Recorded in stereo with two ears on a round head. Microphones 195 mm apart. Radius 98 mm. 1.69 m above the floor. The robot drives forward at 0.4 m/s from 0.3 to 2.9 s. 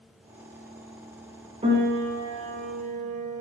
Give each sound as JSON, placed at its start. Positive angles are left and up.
{"t": 1.6, "sound": "a piano", "side_deg": -30, "distance_m": 1.6}